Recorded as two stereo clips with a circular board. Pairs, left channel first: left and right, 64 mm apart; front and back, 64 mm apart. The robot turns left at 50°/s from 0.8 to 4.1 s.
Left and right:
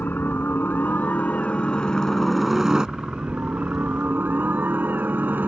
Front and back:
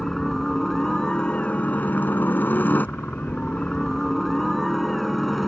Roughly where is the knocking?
No knocking in this recording.